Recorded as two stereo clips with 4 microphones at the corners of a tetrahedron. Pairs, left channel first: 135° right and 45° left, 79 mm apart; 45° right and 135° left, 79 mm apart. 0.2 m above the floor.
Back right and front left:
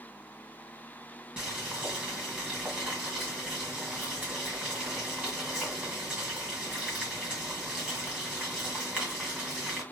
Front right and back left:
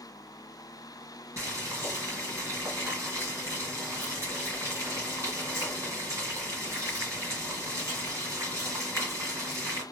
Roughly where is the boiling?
Behind left.